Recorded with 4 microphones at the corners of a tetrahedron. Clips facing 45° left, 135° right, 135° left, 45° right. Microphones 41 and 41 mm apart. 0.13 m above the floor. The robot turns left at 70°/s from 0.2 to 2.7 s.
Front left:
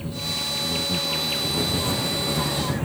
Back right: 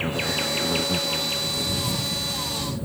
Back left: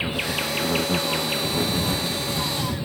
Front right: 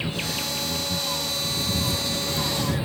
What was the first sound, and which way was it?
An insect, 155° right.